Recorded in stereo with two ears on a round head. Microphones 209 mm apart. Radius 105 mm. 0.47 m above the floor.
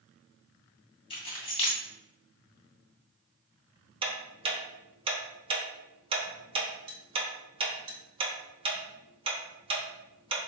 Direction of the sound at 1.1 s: 25° left (ahead or behind).